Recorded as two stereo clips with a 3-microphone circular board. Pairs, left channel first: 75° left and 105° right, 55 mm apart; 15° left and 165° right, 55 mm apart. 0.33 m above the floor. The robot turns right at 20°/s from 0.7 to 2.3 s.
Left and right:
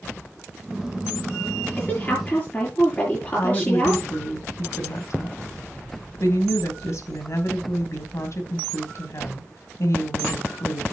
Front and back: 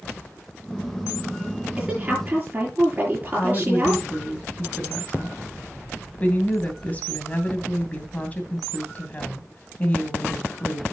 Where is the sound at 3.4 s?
75° left, 2.5 m.